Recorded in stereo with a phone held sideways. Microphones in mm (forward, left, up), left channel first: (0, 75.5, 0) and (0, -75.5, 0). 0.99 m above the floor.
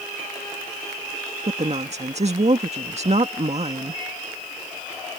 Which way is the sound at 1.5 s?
50° right (ahead or behind).